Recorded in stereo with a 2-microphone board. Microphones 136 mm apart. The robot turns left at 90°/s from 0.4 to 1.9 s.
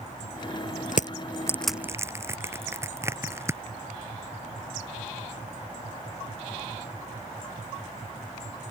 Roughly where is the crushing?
Left.